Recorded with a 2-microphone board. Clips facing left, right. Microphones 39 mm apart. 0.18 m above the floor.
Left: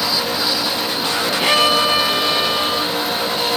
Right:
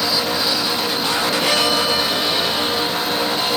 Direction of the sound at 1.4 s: 25° left (ahead or behind).